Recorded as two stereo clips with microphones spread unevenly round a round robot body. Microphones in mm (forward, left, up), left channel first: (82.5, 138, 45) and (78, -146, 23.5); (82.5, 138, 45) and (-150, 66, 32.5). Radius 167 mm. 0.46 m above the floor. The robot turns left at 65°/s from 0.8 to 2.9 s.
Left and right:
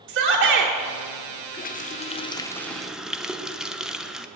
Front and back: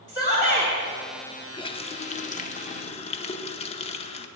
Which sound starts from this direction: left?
A running tap, at 1.5 s.